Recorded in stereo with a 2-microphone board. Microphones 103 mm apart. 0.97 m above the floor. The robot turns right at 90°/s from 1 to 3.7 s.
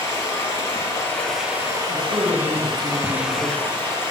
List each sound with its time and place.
0.0 s running water: 145° left, 2.5 m; by 4.1 s 30° left, 2.5 m
1.9 s a man speaking: 95° right, 4 m; by 3.7 s 70° left, 4 m